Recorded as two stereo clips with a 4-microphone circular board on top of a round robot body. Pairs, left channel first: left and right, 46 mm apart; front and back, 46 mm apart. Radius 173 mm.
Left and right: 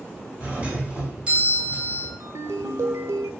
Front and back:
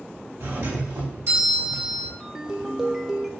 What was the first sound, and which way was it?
A doorbell, 155° right.